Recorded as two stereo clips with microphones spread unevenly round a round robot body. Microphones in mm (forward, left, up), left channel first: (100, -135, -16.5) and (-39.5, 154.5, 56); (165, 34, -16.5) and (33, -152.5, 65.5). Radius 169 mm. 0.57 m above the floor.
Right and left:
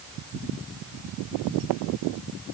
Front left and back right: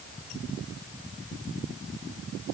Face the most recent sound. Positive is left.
No sound to turn to.